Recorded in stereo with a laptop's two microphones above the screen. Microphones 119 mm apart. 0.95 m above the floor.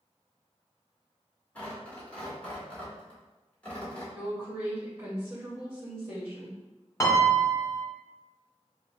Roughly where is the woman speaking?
Right.